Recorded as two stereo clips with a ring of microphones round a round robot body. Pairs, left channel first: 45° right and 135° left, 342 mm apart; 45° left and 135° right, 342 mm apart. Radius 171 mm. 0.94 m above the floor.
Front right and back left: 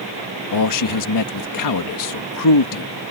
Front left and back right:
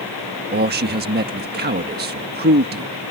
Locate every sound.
0.5 s a man speaking: 75° right